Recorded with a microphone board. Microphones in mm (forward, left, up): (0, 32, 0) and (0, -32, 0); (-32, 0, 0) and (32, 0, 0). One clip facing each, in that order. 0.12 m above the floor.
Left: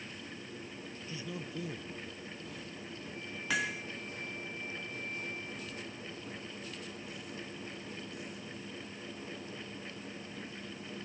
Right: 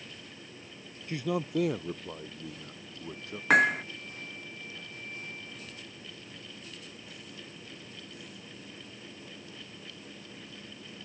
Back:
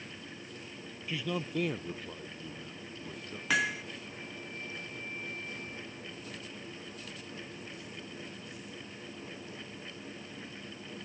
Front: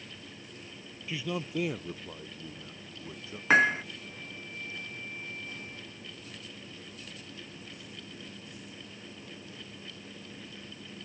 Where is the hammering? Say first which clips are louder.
Right 12 dB, front 8 dB; 50° right.